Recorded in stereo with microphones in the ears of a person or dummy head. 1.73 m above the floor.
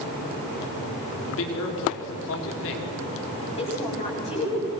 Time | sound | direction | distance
1.2 | a man speaking | 65° left (ahead or behind) | 5 m
3.5 | a woman speaking | 30° left (ahead or behind) | 8.5 m